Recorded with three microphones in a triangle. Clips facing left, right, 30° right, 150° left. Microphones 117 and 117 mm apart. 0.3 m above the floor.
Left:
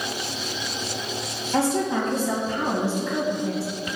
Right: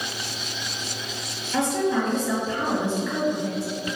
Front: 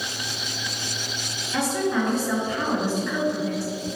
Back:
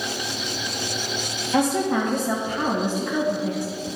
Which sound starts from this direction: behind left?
A woman speaking, at 1.5 s.